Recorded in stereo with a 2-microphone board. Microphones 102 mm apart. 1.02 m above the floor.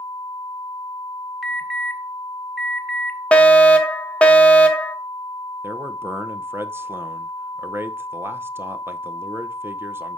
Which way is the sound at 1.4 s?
5° right (ahead or behind).